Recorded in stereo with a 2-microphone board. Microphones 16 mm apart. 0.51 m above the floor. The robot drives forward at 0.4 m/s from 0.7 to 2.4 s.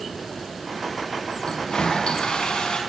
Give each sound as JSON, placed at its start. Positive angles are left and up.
{"t": 1.4, "sound": "a toilet flushing", "side_deg": 75, "distance_m": 5.0}